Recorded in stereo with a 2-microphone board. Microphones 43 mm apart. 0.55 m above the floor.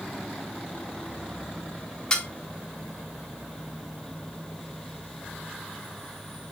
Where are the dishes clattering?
20° left (ahead or behind), 1.7 m.